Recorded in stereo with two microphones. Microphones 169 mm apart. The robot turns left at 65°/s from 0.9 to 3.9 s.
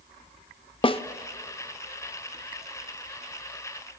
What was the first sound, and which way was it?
A snare drum, 30° left (ahead or behind).